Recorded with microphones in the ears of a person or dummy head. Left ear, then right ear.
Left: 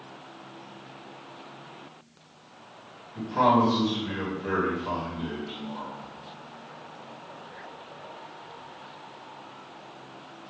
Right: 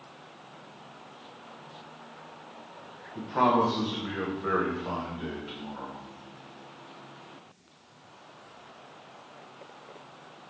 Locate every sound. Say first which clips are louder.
3.1 s a man speaking: left 2 dB; 50° right (ahead or behind), 1.5 m